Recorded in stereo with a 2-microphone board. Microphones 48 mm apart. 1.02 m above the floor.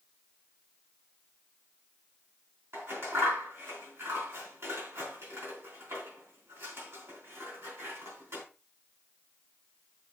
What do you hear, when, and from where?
2.7 s scissors: 70° right (ahead or behind), 4.5 m